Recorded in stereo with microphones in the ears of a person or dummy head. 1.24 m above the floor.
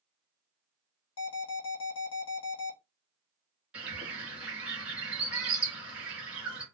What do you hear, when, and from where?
1.2 s an alarm: 80° left, 1.1 m
3.7 s a bird: centre (ahead or behind), 1.0 m